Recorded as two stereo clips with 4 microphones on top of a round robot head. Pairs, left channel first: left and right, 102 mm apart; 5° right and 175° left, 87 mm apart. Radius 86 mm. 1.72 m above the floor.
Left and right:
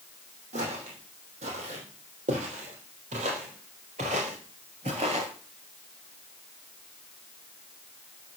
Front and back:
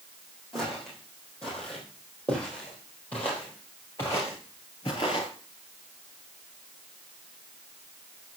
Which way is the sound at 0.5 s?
95° right.